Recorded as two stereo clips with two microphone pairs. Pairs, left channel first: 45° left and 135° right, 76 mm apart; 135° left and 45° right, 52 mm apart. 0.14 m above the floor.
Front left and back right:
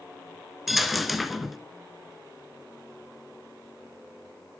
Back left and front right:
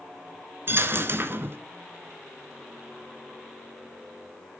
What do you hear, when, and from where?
0.7 s a dropped coin: 45° right, 0.6 m